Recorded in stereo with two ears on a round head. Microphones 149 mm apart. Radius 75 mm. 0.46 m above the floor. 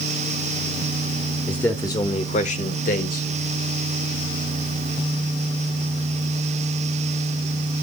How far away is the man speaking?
About 1.2 m.